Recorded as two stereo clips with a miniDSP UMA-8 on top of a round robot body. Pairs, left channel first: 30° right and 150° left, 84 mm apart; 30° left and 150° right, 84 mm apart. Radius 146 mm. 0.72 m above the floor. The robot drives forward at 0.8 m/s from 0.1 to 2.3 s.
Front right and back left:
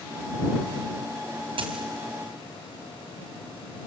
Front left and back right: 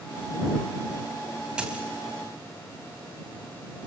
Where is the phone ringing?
I don't hear a phone ringing.